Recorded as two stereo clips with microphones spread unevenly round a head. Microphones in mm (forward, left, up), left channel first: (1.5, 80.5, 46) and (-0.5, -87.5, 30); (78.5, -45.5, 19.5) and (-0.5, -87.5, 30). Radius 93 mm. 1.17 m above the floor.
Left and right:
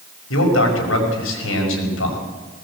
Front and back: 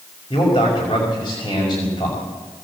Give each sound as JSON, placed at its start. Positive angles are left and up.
{"t": 0.3, "sound": "a man speaking", "azimuth_deg": 90, "distance_m": 5.5}